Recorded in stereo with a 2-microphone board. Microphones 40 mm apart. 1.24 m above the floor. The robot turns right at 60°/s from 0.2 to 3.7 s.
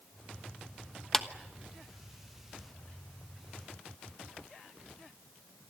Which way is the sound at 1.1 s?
10° left (ahead or behind).